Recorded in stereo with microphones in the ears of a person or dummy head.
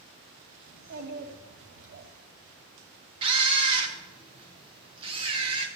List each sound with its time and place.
0.7 s a child speaking: 65° right (ahead or behind), 5.5 m; by 2.1 s 60° right (ahead or behind), 4.5 m
3.2 s a camera shutter: 35° right (ahead or behind), 2 m